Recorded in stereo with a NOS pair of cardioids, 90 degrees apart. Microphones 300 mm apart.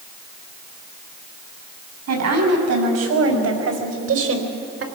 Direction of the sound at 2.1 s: 60° right.